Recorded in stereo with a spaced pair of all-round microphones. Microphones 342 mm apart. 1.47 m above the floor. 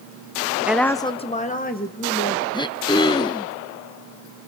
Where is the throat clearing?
15° left (ahead or behind), 0.8 m.